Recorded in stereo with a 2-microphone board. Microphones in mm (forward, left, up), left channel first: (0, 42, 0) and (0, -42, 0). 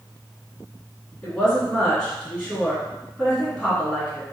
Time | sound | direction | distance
1.2 | a woman speaking | 5° left (ahead or behind) | 1.8 m